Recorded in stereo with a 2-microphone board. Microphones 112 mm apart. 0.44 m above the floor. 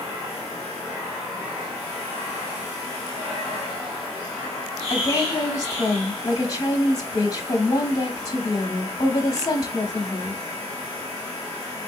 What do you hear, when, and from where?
4.9 s a woman speaking: 30° left (ahead or behind), 1.1 m